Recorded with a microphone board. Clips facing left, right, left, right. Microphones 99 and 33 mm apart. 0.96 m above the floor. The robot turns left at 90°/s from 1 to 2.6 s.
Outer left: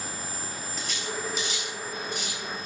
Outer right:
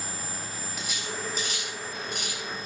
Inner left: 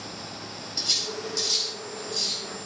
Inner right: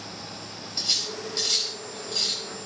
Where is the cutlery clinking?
10° right (ahead or behind), 3.5 m; by 2.4 s 45° right (ahead or behind), 3.5 m.